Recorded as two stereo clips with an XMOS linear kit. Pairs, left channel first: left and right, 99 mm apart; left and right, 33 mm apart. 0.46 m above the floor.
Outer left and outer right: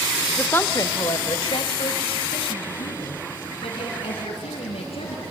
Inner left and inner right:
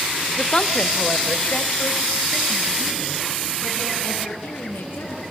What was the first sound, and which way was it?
A woman speaking, 10° left (ahead or behind).